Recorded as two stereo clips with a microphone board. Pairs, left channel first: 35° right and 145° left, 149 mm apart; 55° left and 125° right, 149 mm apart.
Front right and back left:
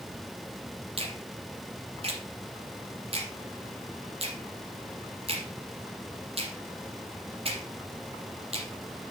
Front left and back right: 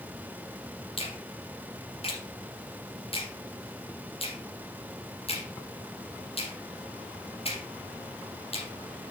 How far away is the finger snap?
About 3 m.